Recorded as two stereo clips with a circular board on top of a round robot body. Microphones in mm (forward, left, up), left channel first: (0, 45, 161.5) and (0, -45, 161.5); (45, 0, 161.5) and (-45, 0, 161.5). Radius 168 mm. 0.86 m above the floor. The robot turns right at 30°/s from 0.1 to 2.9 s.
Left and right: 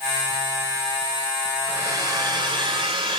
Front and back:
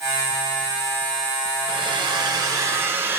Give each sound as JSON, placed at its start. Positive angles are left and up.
{"t": 1.7, "sound": "a hair dryer", "azimuth_deg": -150, "distance_m": 4.5}